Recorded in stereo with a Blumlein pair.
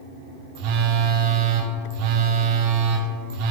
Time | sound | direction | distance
0.6 | a phone buzzing | 45° right | 1.0 m